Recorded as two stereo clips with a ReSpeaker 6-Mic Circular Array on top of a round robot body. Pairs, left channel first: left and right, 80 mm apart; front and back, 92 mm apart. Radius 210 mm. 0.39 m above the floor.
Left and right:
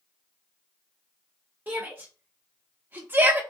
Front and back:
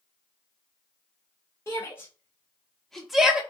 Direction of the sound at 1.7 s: 35° right.